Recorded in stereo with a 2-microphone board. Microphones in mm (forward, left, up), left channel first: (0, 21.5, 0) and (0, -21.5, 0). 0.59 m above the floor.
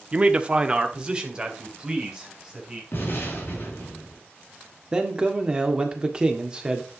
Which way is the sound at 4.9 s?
20° right (ahead or behind).